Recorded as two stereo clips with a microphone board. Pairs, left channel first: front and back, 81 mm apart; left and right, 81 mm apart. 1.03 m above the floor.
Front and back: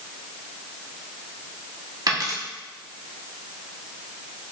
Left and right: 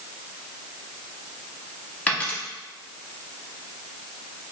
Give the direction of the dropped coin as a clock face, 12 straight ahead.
7 o'clock.